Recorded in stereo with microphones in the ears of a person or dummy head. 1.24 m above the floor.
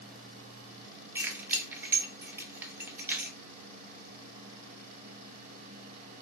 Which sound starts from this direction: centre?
Keys jangling, at 1.1 s.